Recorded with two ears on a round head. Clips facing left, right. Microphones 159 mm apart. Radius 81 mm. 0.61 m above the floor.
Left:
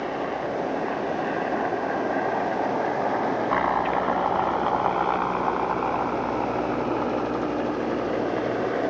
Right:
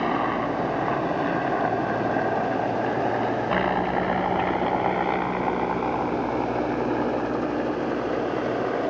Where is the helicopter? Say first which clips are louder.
Right 3 dB; 70° right (ahead or behind); by 8.9 s 5° left (ahead or behind).